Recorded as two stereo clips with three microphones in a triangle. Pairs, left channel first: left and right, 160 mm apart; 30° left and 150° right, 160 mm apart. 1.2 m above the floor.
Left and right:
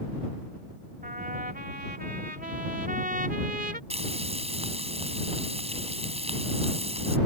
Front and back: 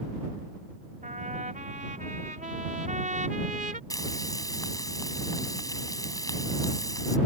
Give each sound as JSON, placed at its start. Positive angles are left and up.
{"t": 1.0, "sound": "a trumpet", "azimuth_deg": -115}
{"t": 3.9, "sound": "frying", "azimuth_deg": -40}